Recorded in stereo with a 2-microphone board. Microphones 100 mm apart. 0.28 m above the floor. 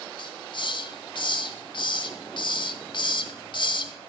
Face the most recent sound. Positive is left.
turn(degrees=50)  # may be behind; listen again after turning